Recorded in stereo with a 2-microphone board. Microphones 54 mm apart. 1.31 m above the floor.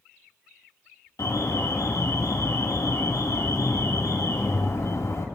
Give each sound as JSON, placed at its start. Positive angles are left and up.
{"t": 1.2, "sound": "an alarm", "side_deg": 85, "distance_m": 3.5}